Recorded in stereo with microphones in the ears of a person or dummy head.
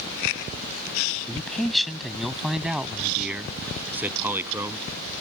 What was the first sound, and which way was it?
A man speaking, 5° left (ahead or behind).